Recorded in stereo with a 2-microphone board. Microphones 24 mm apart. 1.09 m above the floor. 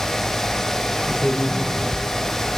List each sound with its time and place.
1.1 s a man speaking: 80° left, 10 m